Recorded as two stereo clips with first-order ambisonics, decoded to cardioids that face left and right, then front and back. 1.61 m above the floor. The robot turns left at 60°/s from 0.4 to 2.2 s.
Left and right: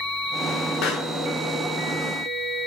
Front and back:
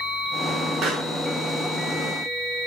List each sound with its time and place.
0.8 s a pop: 125° left, 1.3 m; by 1.1 s 105° left, 1.3 m